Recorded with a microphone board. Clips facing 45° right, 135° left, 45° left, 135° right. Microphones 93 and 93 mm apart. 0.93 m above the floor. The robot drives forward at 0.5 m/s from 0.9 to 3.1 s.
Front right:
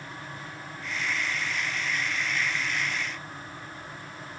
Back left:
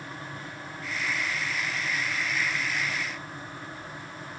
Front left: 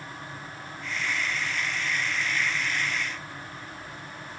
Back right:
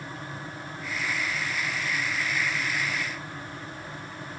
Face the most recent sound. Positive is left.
No sound to turn to.